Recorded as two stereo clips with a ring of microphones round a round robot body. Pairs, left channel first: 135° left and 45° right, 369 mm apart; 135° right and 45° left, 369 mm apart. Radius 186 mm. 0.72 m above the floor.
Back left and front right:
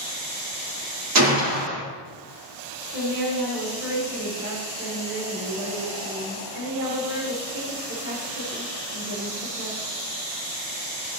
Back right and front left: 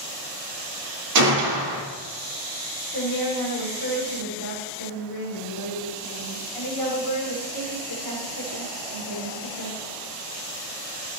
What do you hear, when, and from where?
1.1 s a gunshot: 5° left, 2 m
2.9 s a woman speaking: 100° right, 4 m